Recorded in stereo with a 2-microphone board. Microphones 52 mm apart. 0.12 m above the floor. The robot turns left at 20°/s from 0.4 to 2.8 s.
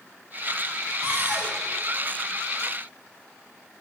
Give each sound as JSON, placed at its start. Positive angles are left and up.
{"t": 1.0, "sound": "a cupboard door", "side_deg": -65, "distance_m": 4.0}